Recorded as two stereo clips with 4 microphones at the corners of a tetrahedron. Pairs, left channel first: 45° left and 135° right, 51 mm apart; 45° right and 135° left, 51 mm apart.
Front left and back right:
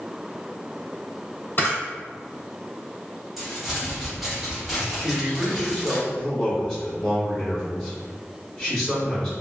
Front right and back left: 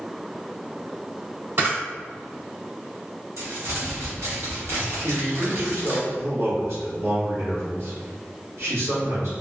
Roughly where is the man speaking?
Behind left.